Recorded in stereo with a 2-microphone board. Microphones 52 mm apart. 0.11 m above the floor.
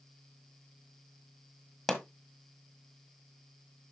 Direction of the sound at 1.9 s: Centre (ahead or behind).